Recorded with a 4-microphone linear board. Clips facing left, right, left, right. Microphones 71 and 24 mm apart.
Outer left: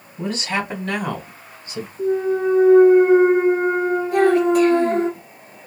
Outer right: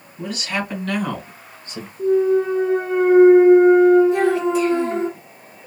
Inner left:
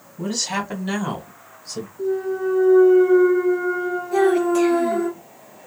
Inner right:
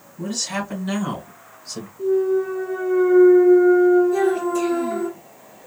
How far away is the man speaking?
About 1.7 m.